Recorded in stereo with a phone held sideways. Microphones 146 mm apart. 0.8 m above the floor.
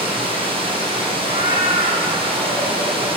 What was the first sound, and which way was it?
Running water, 35° right (ahead or behind).